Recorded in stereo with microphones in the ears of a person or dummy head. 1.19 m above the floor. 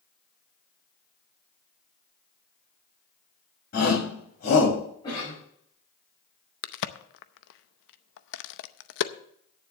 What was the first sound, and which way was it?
A shout, 50° left (ahead or behind).